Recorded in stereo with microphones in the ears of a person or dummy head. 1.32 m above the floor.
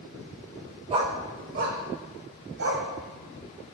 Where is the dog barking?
35° right (ahead or behind), 1.3 m; by 2.9 s 65° right (ahead or behind), 2 m.